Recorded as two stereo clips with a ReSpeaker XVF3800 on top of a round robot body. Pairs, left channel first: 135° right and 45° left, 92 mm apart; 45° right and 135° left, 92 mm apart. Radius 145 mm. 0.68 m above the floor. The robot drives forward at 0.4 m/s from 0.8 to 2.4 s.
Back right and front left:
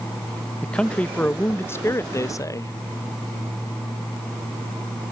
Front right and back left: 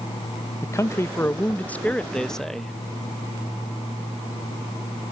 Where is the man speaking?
65° right; by 2.7 s 125° right.